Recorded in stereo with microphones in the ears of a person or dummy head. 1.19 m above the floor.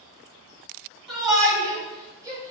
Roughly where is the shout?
Right.